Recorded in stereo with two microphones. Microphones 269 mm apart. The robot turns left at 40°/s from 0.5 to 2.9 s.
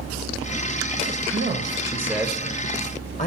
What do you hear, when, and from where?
1.3 s a man speaking: 145° right, 1.0 m; by 3.3 s 150° left, 1.0 m